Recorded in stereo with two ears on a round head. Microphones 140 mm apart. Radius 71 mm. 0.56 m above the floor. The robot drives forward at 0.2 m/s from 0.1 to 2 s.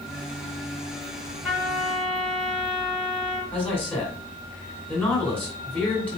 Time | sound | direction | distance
1.4 | a trumpet | 5° left (ahead or behind) | 1.6 m
3.5 | a man speaking | 10° left (ahead or behind) | 2 m